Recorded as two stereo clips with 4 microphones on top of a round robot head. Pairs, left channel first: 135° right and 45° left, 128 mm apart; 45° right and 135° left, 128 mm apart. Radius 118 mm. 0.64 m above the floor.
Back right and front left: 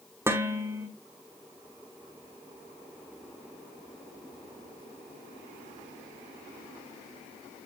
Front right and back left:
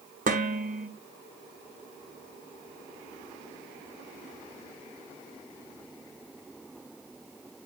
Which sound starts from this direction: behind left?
Dishes clattering, at 0.3 s.